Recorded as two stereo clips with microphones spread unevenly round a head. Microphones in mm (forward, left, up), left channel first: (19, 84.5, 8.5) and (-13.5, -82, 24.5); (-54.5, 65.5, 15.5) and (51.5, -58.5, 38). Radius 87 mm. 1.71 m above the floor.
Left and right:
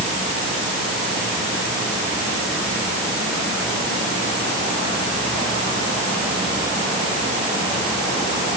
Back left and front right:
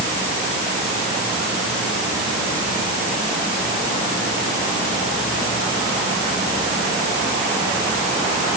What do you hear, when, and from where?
Only background noise.